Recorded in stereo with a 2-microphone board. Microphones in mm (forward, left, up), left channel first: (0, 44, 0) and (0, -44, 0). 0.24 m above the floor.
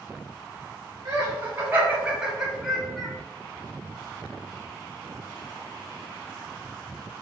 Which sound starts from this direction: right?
Laughter, at 1.1 s.